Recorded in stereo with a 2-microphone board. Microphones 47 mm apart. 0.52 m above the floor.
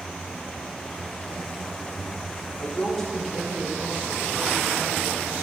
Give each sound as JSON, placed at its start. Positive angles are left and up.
{"t": 2.6, "sound": "a woman speaking", "side_deg": 30, "distance_m": 1.4}